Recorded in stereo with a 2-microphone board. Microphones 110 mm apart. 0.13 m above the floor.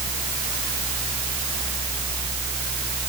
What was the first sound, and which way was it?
Only background noise.